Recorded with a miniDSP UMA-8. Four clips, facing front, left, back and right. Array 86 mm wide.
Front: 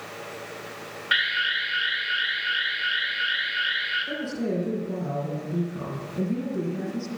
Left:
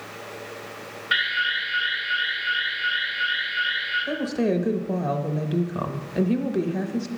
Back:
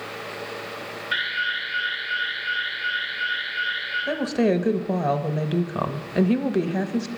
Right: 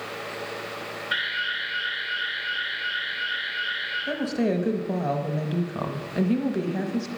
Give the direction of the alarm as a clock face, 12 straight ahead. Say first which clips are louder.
Left 5 dB, front 1 dB; 11 o'clock.